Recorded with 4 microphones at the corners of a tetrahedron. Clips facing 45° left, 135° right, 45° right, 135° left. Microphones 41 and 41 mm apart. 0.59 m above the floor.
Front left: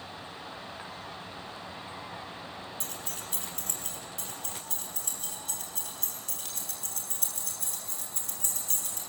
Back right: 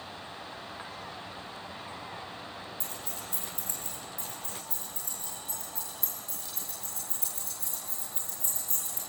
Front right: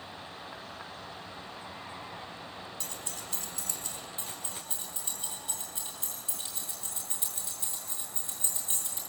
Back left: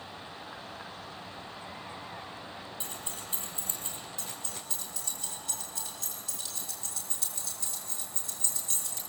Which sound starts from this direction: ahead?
Keys jangling, at 4.2 s.